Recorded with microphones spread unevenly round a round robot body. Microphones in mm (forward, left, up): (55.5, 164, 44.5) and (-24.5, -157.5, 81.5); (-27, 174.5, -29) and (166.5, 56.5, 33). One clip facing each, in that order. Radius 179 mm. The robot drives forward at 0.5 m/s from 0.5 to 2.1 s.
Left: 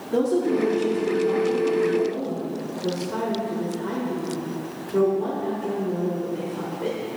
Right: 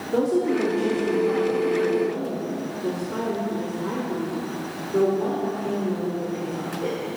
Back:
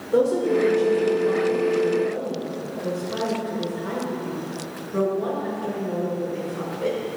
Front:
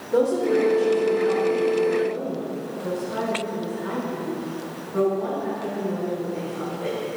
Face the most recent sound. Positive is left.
turn(degrees=160)